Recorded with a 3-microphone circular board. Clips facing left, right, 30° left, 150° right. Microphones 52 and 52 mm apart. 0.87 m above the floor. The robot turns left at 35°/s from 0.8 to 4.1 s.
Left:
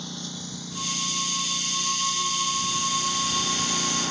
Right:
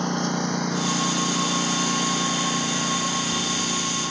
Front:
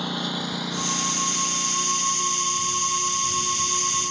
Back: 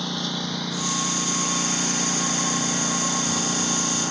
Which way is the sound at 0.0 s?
50° right.